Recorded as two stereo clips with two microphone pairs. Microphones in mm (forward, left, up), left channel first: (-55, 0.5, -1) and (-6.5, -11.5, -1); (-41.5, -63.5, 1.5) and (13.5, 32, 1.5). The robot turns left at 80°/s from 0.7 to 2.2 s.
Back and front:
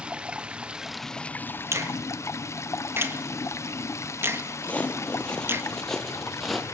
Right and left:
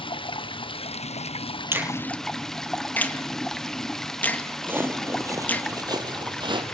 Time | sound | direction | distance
0.0 | running water | 85° right | 0.8 m
1.7 | a finger snap | 5° right | 1.8 m
4.6 | footsteps | 125° left | 2 m